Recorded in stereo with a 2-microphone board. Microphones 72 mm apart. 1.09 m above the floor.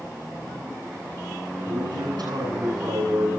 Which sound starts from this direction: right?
A man speaking, at 1.6 s.